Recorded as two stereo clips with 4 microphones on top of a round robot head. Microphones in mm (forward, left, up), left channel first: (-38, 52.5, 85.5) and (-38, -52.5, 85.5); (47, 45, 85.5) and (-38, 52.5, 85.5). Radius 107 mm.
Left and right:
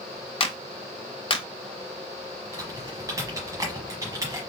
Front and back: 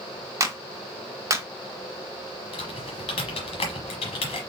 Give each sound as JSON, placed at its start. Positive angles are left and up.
{"t": 0.4, "sound": "a clap", "azimuth_deg": 125, "distance_m": 1.1}
{"t": 2.5, "sound": "typing on a keyboard", "azimuth_deg": -25, "distance_m": 1.1}